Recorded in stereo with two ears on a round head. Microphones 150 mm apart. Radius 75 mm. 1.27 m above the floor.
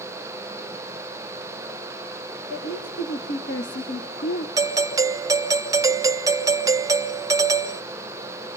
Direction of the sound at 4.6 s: 20° right (ahead or behind).